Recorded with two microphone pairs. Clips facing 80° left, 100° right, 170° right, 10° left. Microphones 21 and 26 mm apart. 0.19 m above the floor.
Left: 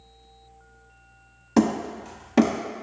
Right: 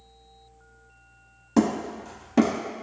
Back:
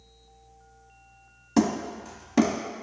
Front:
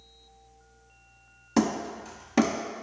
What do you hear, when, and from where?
1.6 s hammering: 75° left, 0.7 m